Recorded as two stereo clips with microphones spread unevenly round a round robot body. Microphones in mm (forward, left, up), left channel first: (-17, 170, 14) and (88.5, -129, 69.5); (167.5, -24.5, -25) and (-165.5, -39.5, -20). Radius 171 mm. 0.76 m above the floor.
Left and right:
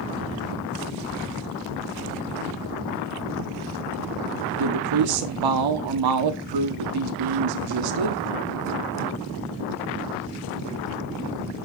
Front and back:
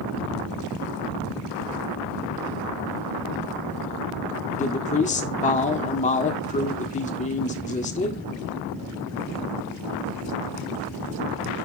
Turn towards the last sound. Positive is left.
turn(degrees=-65)